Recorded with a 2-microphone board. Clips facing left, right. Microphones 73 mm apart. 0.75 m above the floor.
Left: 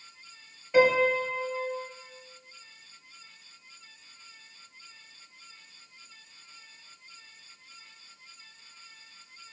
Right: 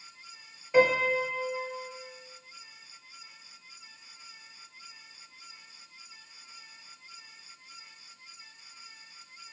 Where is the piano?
5° right (ahead or behind), 0.6 m.